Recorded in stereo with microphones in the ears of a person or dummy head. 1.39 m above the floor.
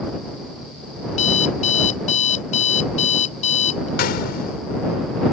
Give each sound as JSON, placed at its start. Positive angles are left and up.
{"t": 1.1, "sound": "an alarm clock", "side_deg": 45}
{"t": 4.0, "sound": "a gunshot", "side_deg": 60}